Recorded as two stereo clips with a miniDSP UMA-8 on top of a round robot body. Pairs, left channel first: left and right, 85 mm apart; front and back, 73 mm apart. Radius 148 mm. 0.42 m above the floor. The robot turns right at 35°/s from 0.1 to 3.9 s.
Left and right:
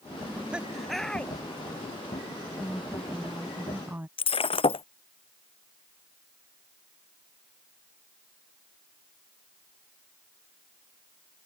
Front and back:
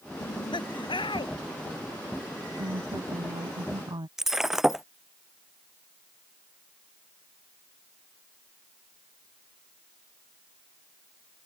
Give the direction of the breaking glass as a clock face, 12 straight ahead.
9 o'clock.